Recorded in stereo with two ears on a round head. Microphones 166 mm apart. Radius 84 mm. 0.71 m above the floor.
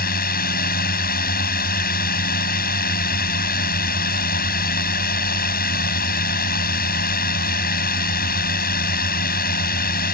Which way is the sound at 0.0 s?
55° left (ahead or behind).